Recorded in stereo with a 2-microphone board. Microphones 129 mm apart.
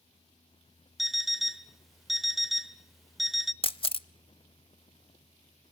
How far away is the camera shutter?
About 0.7 m.